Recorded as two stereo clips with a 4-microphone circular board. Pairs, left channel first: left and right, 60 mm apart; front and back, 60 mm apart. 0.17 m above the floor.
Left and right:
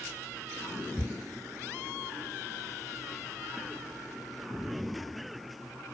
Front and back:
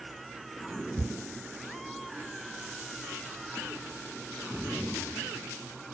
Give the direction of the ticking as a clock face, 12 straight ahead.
5 o'clock.